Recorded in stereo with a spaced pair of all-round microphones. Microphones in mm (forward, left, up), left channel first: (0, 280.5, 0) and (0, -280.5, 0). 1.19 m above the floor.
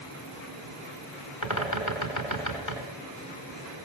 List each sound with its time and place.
1.4 s a bird: 30° left (ahead or behind), 3.5 m